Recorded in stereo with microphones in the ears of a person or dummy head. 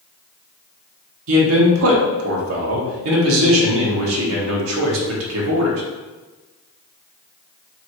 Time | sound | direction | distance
1.3 | a man speaking | 85° right | 1.2 m